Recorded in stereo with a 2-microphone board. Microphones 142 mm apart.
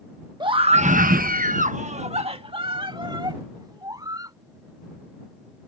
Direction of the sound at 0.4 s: 30° right (ahead or behind).